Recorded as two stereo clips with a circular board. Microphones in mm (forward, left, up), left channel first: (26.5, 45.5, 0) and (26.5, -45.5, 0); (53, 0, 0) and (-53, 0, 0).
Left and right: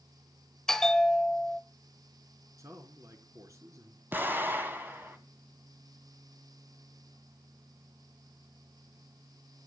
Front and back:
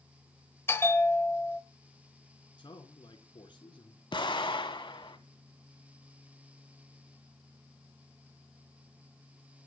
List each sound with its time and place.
0.7 s a bell: 10° left, 1.1 m
2.6 s a man speaking: 40° right, 3.5 m
4.1 s an explosion: 30° right, 2.5 m